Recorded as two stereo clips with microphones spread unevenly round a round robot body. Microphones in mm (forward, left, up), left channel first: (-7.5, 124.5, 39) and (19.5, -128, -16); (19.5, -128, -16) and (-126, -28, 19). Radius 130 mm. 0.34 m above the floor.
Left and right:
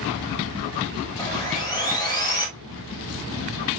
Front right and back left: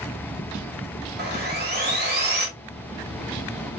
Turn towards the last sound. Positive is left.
turn(degrees=180)